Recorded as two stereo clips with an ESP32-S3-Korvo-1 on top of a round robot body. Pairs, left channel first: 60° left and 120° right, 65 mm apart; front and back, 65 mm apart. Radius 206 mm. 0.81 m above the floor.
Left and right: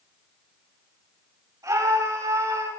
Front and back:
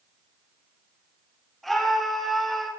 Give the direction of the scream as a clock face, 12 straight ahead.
3 o'clock.